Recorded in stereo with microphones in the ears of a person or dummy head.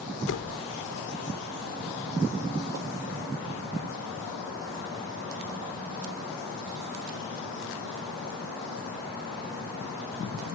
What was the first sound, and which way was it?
A door slam, 65° left (ahead or behind).